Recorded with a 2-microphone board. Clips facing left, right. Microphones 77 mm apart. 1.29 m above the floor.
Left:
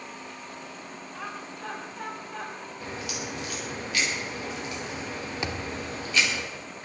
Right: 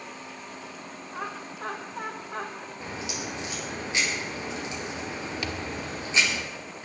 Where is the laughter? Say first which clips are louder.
Right 3 dB; 55° right (ahead or behind), 3 m.